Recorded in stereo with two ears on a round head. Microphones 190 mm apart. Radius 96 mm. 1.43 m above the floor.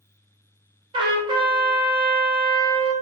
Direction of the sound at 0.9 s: 25° right (ahead or behind).